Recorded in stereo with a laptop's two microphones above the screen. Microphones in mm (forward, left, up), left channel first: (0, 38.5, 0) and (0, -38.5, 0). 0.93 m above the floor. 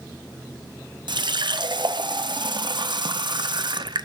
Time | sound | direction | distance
1.1 | a running tap | 75° right (ahead or behind) | 0.8 m